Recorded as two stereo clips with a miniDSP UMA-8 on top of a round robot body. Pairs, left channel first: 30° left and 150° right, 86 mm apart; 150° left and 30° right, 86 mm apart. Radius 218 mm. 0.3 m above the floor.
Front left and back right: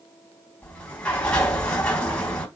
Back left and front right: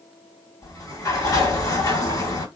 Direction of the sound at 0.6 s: 105° left.